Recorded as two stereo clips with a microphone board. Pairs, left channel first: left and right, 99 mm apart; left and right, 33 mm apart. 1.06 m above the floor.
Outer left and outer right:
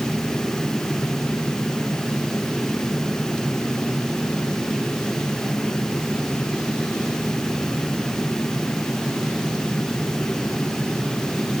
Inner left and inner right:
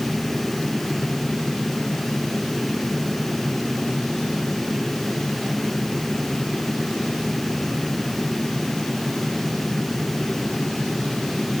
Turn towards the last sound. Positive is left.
No sound to turn to.